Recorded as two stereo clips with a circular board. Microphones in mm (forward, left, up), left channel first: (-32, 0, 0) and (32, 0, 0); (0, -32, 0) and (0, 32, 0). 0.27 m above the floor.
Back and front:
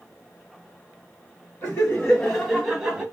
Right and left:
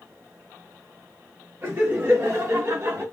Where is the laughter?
130° left, 1.7 m; by 3.0 s 75° left, 1.5 m.